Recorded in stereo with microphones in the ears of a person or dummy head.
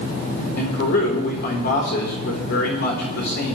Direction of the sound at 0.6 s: 55° left (ahead or behind).